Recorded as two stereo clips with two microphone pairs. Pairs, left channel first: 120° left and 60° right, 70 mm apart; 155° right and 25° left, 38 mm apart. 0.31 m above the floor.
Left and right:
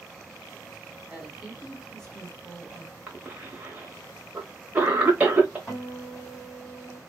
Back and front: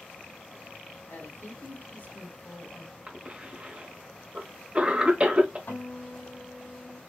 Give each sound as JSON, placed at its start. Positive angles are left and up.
{"t": 1.1, "sound": "a woman speaking", "azimuth_deg": -145, "distance_m": 2.5}
{"t": 3.1, "sound": "a cough", "azimuth_deg": -5, "distance_m": 1.0}
{"t": 5.7, "sound": "a guitar", "azimuth_deg": -150, "distance_m": 3.0}